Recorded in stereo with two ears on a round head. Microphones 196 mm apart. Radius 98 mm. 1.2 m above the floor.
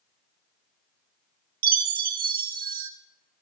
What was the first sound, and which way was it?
A chime, 40° right (ahead or behind).